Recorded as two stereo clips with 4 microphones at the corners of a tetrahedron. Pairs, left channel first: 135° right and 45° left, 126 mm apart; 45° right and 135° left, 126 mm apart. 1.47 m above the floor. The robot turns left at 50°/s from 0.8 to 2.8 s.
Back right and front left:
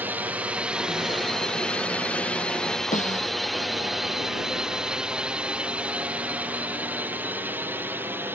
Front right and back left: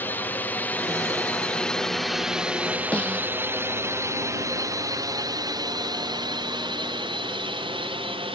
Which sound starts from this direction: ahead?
A drone, at 0.0 s.